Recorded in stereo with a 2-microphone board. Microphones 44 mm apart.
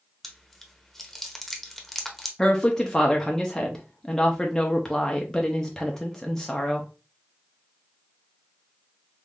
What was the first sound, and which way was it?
Chewing, centre (ahead or behind).